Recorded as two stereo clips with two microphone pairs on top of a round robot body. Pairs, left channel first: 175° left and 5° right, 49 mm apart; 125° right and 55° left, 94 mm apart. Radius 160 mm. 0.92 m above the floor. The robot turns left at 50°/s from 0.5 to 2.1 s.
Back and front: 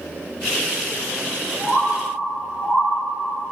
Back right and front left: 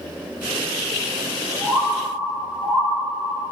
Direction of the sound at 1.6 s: 120° right.